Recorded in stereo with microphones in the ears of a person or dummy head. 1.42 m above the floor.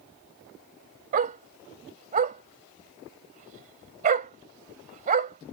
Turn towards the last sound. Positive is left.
turn(degrees=-45)  # may be behind; listen again after turning